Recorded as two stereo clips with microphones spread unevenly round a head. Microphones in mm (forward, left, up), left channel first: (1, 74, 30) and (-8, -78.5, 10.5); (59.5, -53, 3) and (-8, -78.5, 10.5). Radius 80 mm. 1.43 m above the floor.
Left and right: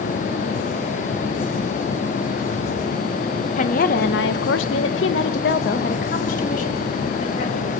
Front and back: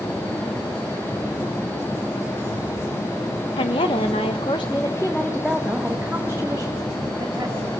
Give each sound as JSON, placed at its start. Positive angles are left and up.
{"t": 3.6, "sound": "a woman speaking", "azimuth_deg": 40, "distance_m": 1.5}